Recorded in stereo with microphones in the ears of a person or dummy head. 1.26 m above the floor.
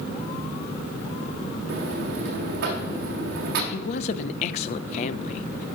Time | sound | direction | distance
1.7 | a buzzer | 60° right (ahead or behind) | 1.5 m
3.7 | a woman speaking | 55° left (ahead or behind) | 0.6 m